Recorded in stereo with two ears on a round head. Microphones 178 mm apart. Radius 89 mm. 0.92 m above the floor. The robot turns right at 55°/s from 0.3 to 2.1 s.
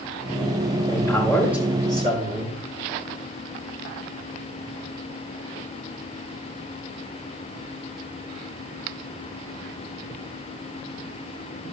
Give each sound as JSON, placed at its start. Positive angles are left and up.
{"t": 0.9, "sound": "a man speaking", "azimuth_deg": 155, "distance_m": 4.5}